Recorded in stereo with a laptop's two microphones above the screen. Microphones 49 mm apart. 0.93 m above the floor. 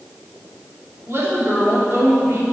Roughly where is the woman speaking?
Right.